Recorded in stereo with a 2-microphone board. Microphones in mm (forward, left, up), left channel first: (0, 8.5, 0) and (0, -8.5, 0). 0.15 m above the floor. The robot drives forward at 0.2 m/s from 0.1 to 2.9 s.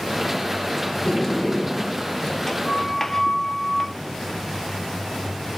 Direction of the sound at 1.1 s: 20° left (ahead or behind).